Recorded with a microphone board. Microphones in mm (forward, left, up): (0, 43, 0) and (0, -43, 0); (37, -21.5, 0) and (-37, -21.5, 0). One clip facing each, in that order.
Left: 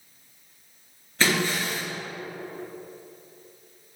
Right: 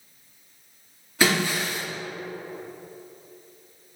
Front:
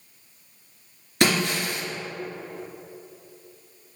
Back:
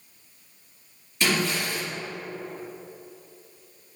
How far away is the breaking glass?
About 2.0 m.